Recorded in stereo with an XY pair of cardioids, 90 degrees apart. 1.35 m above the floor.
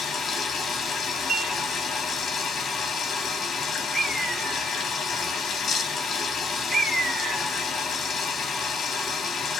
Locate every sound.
0.0 s running water: 65° left, 1.1 m
1.3 s dishes clattering: 50° right, 1.3 m
3.9 s a bird: 50° right, 1.4 m